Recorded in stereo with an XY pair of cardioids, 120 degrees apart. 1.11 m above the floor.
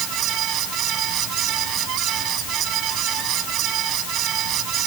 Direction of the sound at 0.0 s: 70° right.